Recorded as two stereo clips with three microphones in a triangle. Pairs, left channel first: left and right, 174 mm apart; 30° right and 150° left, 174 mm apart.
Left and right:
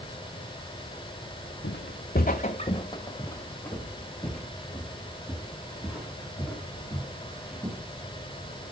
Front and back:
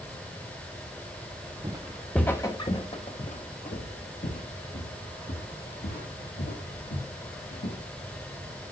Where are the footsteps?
85° left, 1.0 m; by 7.8 s 10° right, 6 m.